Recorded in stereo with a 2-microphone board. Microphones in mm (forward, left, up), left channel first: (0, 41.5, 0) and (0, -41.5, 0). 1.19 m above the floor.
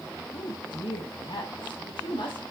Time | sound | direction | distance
0.3 | a woman speaking | 55° left (ahead or behind) | 1.5 m